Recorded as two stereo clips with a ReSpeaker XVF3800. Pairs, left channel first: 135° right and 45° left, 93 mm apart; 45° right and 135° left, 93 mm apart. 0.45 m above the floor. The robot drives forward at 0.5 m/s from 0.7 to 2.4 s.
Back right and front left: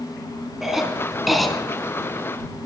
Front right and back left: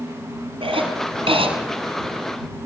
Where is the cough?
130° left, 4.5 m; by 1.5 s 135° left, 5 m.